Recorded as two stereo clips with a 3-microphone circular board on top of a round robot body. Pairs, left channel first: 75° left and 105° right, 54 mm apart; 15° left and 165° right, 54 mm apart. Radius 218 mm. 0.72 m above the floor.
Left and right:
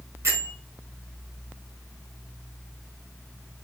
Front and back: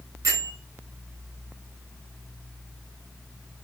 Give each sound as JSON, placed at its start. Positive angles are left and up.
{"t": 0.2, "sound": "a bell", "azimuth_deg": -150, "distance_m": 3.5}